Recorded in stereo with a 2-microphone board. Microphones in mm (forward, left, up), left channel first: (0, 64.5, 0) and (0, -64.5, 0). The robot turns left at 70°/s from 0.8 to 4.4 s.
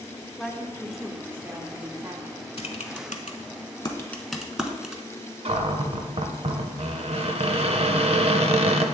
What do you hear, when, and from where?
0.4 s a woman speaking: centre (ahead or behind), 0.7 m; by 2.4 s 25° right (ahead or behind), 0.7 m
2.6 s typing on a keyboard: 50° left (ahead or behind), 0.7 m; by 5.0 s 5° right (ahead or behind), 0.7 m
5.5 s a cupboard door: 50° right (ahead or behind), 0.5 m